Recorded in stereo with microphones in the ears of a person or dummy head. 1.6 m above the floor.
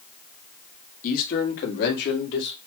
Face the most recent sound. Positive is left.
turn(degrees=70)  # may be behind; listen again after turning